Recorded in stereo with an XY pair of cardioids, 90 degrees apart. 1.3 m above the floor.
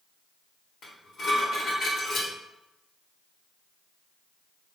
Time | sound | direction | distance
0.8 | dishes clattering | 65° left | 1.6 m